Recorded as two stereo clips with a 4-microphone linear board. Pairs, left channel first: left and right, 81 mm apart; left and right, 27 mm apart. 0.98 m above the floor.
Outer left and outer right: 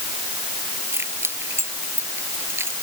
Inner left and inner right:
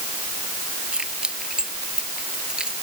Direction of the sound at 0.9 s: 30° right (ahead or behind).